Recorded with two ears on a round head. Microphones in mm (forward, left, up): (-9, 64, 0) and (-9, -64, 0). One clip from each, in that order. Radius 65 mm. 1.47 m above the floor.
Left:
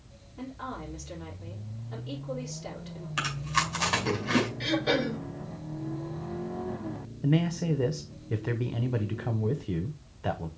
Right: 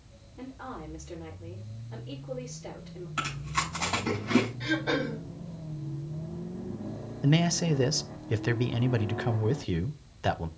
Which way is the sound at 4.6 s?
50° left (ahead or behind).